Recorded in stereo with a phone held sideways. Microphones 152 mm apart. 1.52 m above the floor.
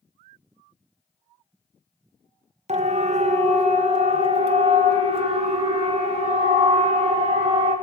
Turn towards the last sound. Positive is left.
turn(degrees=-40)  # may be behind; listen again after turning